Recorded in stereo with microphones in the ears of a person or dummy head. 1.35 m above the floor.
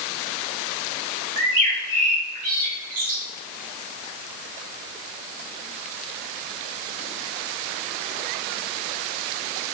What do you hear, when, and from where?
1.4 s a bird: 50° right (ahead or behind), 1.0 m